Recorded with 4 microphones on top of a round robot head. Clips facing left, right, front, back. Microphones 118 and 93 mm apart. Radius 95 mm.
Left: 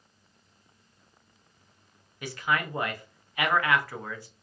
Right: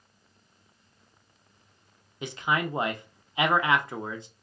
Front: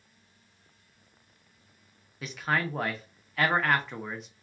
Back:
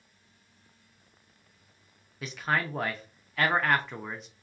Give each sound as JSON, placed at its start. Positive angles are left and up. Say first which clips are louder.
{"t": 2.2, "sound": "a man speaking", "louder": "right 1 dB, even", "azimuth_deg": -90, "distance_m": 0.5}